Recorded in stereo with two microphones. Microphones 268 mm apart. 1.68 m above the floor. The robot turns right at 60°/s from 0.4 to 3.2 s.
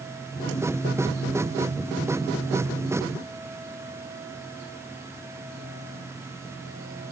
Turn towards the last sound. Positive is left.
No sound to turn to.